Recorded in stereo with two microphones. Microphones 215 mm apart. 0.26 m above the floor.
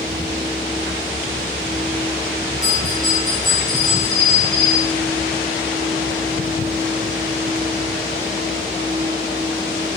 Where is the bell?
85° right, 9 m.